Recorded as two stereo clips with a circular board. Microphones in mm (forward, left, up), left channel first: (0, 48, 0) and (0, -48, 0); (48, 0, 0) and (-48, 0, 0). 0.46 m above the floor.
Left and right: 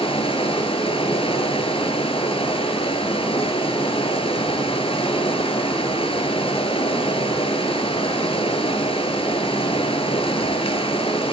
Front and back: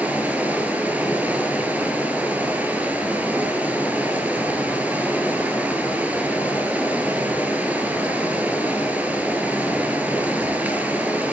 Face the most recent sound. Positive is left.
turn(degrees=105)